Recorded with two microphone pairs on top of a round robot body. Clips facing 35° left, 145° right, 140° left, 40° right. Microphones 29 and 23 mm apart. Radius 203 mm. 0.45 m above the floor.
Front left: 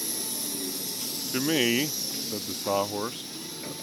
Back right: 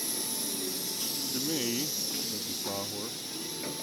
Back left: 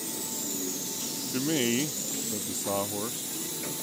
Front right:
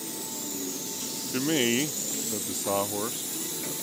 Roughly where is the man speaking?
Ahead left.